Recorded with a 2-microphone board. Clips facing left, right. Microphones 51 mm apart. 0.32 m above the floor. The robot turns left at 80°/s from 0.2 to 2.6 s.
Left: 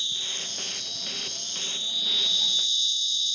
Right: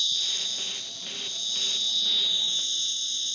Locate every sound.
0.0 s an insect: 155° left; by 3.4 s 35° right